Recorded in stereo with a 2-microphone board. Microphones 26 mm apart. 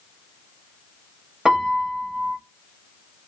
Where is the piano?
20° right (ahead or behind), 0.7 m.